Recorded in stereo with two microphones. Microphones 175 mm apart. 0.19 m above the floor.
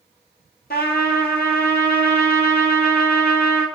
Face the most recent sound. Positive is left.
turn(degrees=65)  # may be behind; listen again after turning